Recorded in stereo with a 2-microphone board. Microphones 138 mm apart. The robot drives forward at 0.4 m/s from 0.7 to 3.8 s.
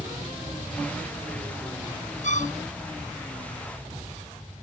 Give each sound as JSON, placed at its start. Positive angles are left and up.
{"t": 2.2, "sound": "a violin", "side_deg": 60}